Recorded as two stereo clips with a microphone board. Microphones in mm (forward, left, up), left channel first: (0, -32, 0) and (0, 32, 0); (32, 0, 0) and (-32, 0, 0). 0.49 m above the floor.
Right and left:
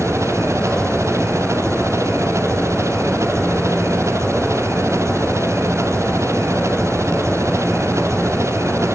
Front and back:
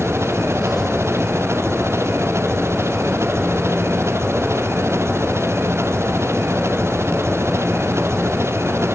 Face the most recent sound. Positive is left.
turn(degrees=130)